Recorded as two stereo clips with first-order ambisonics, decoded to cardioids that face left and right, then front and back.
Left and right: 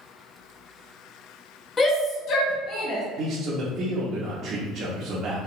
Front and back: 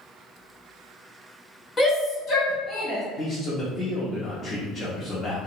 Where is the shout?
55° left, 0.6 m.